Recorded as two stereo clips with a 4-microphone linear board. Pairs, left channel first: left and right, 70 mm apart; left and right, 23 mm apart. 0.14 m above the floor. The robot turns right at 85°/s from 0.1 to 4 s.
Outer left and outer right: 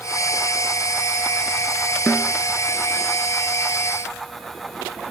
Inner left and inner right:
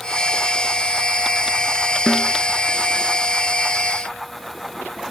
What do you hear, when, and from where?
2.1 s a snare drum: 20° left (ahead or behind); by 2.3 s 5° left (ahead or behind)